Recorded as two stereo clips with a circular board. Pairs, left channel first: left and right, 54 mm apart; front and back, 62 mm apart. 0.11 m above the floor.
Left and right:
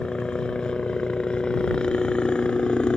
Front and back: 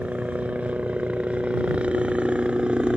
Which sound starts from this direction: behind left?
A helicopter, at 0.0 s.